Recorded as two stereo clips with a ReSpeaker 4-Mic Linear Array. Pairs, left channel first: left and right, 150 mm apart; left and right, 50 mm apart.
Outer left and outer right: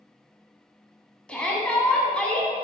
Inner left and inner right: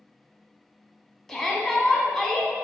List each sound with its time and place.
1.3 s a shout: 5° left (ahead or behind), 1.5 m